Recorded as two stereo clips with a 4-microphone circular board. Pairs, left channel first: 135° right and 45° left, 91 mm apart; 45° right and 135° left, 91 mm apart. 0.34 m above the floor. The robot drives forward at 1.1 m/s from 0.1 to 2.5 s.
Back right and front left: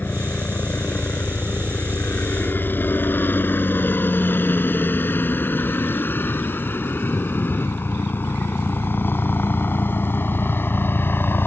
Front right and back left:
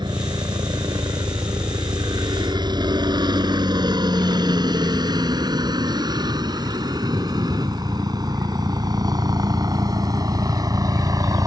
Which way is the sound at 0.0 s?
155° left.